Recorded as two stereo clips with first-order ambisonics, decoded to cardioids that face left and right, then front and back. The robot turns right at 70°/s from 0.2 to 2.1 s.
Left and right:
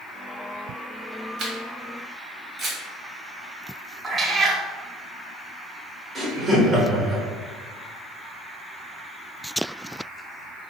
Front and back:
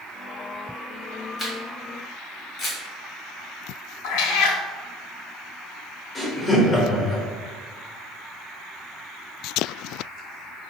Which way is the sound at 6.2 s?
40° right.